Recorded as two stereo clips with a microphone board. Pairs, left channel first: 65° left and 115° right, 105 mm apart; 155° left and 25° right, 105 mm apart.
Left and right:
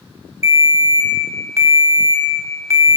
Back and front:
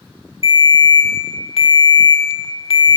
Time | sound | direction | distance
0.4 | a ringtone | 175° right | 1.4 m